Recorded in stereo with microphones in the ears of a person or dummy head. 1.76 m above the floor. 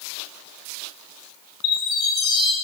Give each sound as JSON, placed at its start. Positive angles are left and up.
{"t": 1.6, "sound": "a chime", "side_deg": 65, "distance_m": 3.5}